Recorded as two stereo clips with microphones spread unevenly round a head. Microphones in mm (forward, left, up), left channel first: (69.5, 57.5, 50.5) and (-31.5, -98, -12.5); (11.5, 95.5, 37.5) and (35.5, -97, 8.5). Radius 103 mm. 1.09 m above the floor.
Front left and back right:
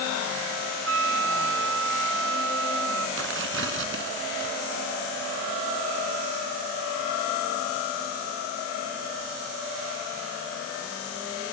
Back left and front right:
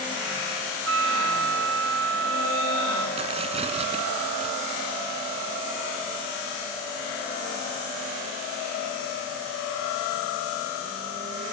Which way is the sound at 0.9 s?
115° right.